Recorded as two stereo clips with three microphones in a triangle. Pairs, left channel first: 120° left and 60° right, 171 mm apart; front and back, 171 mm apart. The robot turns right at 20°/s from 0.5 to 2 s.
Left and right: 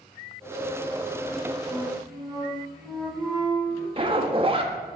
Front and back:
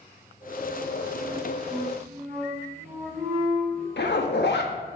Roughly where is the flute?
Behind right.